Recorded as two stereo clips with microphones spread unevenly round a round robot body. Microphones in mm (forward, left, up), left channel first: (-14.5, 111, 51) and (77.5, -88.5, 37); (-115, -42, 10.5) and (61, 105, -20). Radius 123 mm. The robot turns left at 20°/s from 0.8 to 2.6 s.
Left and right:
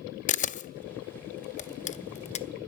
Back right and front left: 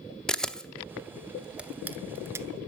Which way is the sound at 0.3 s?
120° left.